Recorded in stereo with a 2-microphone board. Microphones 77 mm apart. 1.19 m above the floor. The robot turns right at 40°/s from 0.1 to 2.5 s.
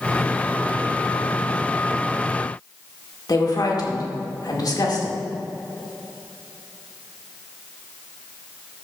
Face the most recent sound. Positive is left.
turn(degrees=55)  # may be behind; listen again after turning